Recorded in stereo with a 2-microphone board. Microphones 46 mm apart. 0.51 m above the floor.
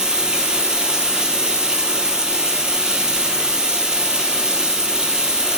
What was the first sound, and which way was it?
Running water, 15° right (ahead or behind).